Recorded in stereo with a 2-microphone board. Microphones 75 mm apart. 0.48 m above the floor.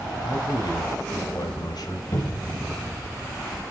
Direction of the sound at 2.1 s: 55° left (ahead or behind).